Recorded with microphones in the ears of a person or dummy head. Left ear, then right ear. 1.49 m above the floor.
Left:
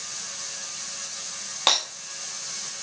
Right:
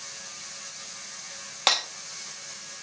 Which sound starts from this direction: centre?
Breaking glass, at 1.7 s.